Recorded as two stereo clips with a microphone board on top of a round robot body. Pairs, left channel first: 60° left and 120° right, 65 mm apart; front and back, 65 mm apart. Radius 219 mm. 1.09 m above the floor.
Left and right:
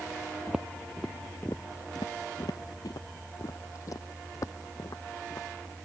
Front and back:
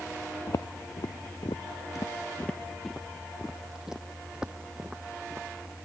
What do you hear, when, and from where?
0.5 s footsteps: 35° right; by 5.8 s 105° left